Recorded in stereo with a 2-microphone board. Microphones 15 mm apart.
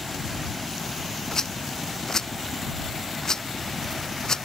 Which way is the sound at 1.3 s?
40° left (ahead or behind).